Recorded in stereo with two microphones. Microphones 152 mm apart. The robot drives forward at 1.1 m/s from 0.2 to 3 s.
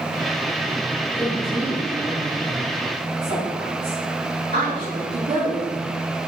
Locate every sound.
1.2 s a woman speaking: 60° right (ahead or behind), 3.5 m; by 5.8 s 80° right, 3 m